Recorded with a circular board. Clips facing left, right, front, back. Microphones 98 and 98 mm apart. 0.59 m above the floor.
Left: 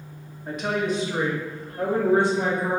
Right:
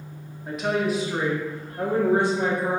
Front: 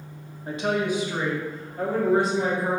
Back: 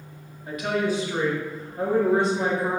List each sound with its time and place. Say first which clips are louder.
0.5 s a woman speaking: right 1 dB, even; straight ahead, 0.9 m; by 2.8 s 150° right, 1.1 m